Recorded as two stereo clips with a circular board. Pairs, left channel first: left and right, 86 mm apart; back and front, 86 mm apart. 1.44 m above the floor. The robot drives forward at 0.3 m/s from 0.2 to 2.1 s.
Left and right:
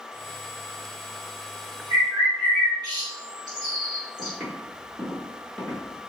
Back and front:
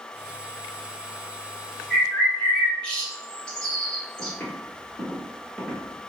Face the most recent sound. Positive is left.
turn(degrees=120)